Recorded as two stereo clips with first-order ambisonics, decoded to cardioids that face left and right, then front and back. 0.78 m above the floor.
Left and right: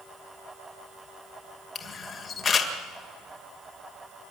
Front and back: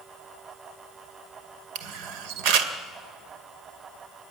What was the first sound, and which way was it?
A camera shutter, 160° left.